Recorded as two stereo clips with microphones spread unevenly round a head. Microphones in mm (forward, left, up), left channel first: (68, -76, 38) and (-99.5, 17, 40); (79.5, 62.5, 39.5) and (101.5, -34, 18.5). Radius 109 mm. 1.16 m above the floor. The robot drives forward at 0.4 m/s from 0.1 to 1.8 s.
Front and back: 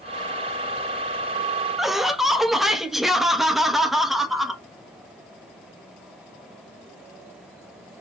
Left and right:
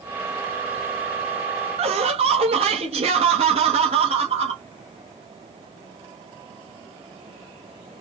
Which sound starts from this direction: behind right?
Laughter, at 1.8 s.